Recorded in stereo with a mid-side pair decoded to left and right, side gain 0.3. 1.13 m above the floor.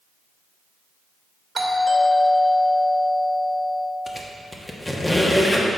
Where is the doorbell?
50° right, 1.7 m.